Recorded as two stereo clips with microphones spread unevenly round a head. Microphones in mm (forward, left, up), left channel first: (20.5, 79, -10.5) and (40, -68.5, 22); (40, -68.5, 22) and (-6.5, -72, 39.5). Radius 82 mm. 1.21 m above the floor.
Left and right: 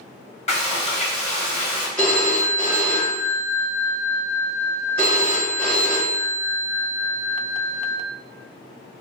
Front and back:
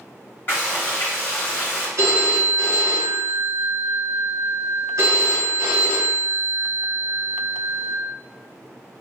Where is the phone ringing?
Straight behind, 1.1 m.